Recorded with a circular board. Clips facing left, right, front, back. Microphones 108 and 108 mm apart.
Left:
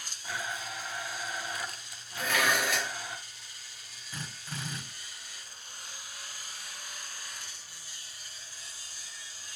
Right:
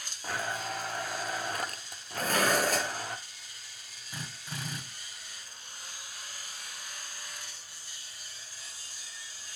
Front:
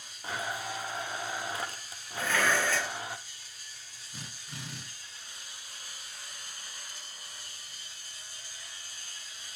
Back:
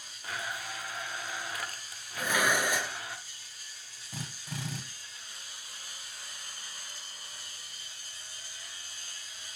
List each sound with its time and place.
0.2 s a blender: 60° right, 1.2 m
2.2 s dishes clattering: 110° right, 1.2 m
4.1 s a drill: 170° right, 6.5 m